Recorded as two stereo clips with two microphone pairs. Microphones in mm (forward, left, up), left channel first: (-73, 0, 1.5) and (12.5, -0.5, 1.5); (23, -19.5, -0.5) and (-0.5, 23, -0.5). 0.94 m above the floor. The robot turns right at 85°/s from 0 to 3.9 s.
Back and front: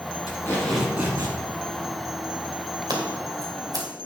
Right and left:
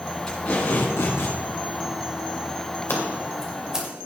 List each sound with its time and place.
0.3 s tape being pulled: 135° right, 4.5 m; by 1.4 s 40° right, 4.5 m
2.9 s scissors: 30° right, 2.5 m; by 3.9 s 50° left, 2.5 m